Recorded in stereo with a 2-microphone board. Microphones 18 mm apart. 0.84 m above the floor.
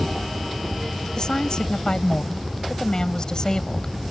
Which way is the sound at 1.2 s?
45° left (ahead or behind).